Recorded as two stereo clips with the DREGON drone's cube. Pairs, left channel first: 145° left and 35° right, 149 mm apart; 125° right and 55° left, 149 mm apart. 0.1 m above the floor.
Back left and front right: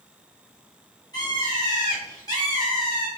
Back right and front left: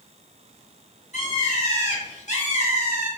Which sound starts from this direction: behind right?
A bird, at 1.1 s.